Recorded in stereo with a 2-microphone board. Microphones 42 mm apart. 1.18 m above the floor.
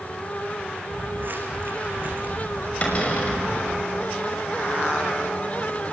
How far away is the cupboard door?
About 6 m.